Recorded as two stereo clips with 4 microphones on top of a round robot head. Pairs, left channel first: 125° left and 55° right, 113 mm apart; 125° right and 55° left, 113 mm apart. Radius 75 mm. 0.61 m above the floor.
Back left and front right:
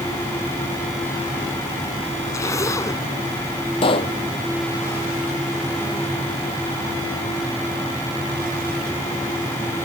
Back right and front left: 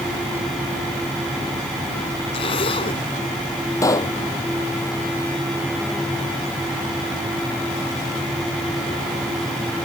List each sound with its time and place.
2.3 s a zipper: 170° right
3.8 s a pop: 170° left